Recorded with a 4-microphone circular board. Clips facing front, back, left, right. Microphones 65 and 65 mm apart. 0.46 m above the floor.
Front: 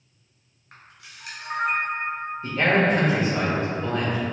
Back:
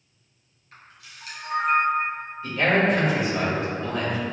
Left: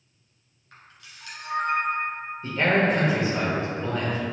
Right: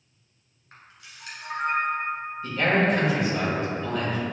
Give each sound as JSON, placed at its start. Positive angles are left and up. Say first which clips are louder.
{"t": 0.7, "sound": "a camera shutter", "louder": "even, even", "azimuth_deg": -20, "distance_m": 1.5}
{"t": 2.4, "sound": "a man speaking", "louder": "even, left 1 dB", "azimuth_deg": 40, "distance_m": 1.2}